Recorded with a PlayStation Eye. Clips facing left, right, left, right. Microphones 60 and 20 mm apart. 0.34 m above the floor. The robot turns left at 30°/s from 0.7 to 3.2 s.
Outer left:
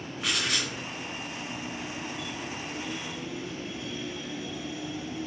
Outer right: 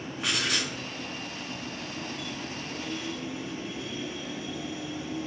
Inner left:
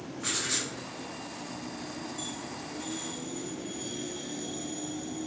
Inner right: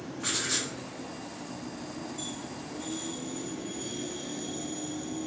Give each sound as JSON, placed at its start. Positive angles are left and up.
{"t": 0.2, "sound": "writing", "side_deg": -5, "distance_m": 1.3}